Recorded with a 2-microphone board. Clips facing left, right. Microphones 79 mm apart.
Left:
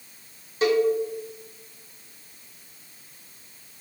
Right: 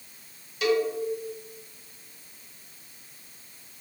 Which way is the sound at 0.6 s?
35° left (ahead or behind).